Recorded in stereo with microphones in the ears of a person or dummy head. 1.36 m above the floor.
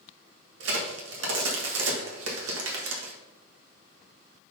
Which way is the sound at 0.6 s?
85° right.